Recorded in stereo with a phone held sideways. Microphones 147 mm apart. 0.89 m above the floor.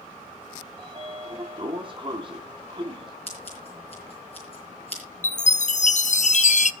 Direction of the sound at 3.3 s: 45° left (ahead or behind).